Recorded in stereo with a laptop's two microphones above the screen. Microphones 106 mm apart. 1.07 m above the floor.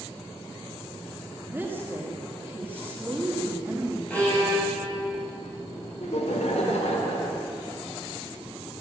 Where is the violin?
15° left (ahead or behind), 7.5 m.